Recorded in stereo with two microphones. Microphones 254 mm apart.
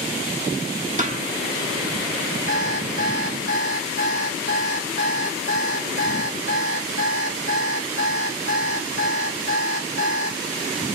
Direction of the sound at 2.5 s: 45° left (ahead or behind).